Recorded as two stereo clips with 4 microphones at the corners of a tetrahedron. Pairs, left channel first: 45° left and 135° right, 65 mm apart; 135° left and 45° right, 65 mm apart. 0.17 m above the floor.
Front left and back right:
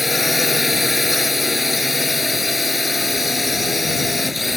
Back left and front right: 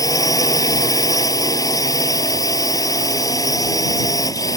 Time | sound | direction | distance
0.0 | a drone | 135° left | ?